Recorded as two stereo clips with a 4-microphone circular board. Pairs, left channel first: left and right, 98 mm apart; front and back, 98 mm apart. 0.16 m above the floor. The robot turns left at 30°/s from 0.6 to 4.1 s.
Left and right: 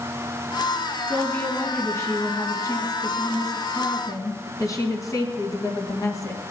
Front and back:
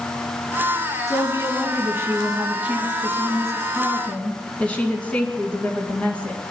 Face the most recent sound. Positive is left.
turn(degrees=70)